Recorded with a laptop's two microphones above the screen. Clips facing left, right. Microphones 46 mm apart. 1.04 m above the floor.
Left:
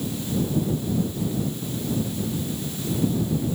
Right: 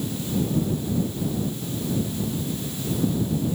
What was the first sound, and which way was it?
Only background noise.